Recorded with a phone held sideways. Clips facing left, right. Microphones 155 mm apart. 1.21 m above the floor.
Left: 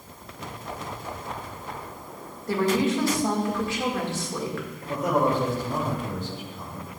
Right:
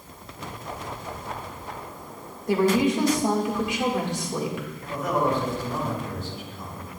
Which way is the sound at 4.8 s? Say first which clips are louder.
Left 2 dB; 40° left (ahead or behind).